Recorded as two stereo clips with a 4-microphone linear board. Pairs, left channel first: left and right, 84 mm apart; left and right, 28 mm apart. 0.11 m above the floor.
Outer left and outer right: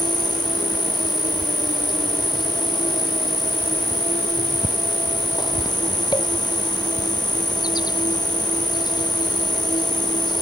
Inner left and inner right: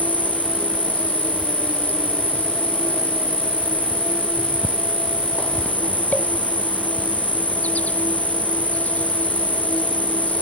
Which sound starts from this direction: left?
An insect, at 0.0 s.